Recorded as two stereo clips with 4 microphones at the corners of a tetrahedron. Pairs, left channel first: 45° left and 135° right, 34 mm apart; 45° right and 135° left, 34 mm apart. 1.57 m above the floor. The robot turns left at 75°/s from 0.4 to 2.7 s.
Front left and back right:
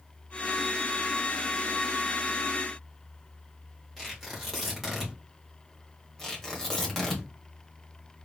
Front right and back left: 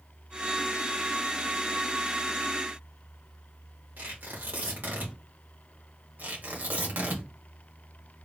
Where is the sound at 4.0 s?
135° left, 2.5 m.